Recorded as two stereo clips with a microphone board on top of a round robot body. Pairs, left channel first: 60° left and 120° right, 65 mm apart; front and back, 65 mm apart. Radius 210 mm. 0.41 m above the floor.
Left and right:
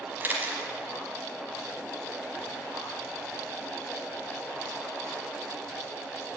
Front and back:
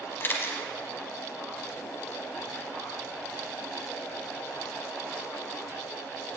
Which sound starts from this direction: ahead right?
A camera shutter, at 0.2 s.